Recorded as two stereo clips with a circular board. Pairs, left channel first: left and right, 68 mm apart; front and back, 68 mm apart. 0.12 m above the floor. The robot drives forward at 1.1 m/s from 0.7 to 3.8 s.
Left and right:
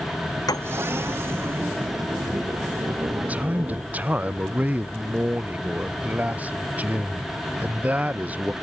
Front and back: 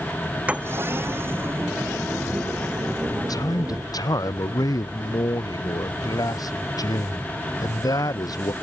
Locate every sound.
0.5 s a piano: 110° left; by 0.8 s 115° left
3.1 s a man speaking: 20° right